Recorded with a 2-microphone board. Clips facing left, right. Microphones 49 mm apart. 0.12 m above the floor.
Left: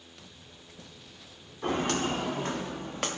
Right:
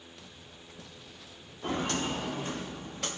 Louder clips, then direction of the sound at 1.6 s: Left 3 dB; 60° left (ahead or behind).